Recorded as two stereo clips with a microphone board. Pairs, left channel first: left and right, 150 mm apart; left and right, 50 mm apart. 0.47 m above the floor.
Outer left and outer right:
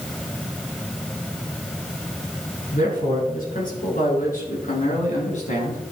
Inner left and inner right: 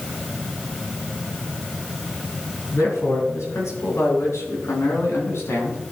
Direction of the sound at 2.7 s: 65° left (ahead or behind).